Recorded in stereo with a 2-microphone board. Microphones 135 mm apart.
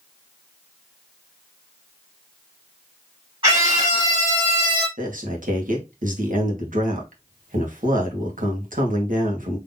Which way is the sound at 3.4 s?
40° right (ahead or behind).